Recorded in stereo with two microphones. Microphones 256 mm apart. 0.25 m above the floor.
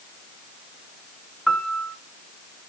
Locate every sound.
1.5 s a piano: centre (ahead or behind), 1.0 m